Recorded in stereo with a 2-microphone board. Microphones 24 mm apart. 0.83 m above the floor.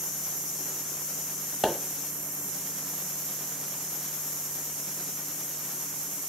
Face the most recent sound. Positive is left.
turn(degrees=-20)  # may be behind; listen again after turning